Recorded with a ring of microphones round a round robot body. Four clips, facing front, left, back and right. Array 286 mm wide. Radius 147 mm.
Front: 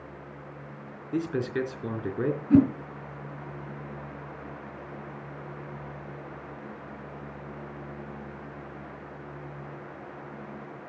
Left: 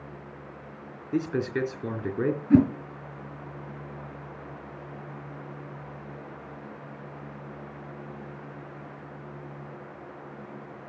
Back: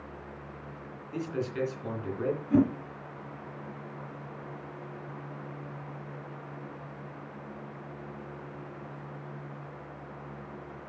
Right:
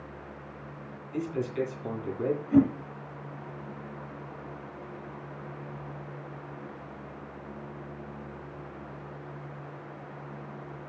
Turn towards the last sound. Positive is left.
turn(degrees=65)